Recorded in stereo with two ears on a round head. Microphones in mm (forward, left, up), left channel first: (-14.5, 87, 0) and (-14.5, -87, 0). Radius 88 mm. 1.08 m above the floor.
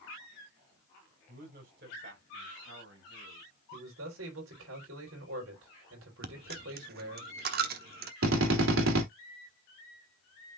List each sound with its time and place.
1.3 s a man speaking: 45° right (ahead or behind), 5 m; by 3.5 s 70° right (ahead or behind), 6 m
3.7 s a man speaking: 75° right (ahead or behind), 4.5 m
6.2 s a dropped coin: 50° right (ahead or behind), 1.1 m
8.2 s a drill: 80° right, 3 m